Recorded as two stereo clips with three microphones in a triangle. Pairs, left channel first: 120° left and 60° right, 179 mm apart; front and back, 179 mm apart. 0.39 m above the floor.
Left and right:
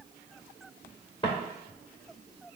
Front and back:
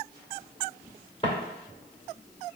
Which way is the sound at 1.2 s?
55° left.